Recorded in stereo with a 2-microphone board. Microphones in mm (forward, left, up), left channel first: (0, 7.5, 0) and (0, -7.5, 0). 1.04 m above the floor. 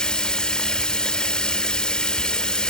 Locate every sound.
0.0 s running water: 55° left (ahead or behind), 0.9 m